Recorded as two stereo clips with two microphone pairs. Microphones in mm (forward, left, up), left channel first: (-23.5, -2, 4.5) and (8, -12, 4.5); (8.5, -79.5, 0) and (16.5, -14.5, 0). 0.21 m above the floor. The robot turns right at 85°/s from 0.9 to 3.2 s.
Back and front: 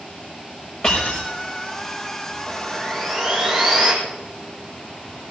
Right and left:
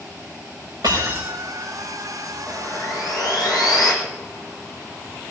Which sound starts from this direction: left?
Breaking glass, at 0.8 s.